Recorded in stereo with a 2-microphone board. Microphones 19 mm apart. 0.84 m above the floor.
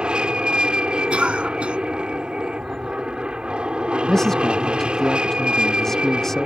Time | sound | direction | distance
0.0 | an aircraft | 60° right (ahead or behind) | ?
1.1 | a cough | 85° right | ?
4.1 | a man speaking | 25° left (ahead or behind) | ?